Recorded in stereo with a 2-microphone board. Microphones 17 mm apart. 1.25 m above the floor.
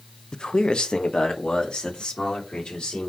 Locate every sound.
0.3 s a man speaking: 45° left (ahead or behind), 0.6 m; by 3.1 s 80° left, 4 m